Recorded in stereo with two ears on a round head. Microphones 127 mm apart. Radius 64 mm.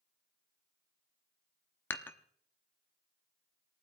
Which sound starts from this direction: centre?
Dishes clattering, at 1.9 s.